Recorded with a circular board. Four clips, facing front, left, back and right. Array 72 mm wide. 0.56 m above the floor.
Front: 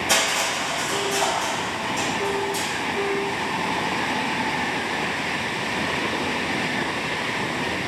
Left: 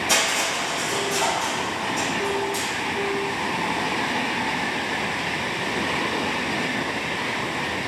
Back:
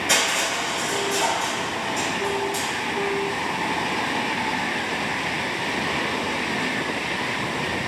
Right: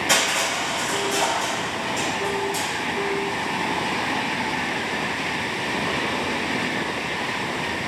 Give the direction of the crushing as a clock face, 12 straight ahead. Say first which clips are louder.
Right 1 dB, even; 4 o'clock.